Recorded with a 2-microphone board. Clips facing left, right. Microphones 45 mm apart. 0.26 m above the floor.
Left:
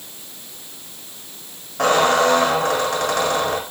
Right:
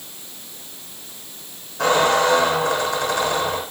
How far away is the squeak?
About 8.5 m.